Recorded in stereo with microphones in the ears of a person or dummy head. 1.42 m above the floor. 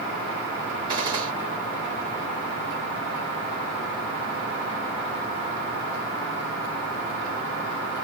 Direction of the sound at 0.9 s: 25° right (ahead or behind).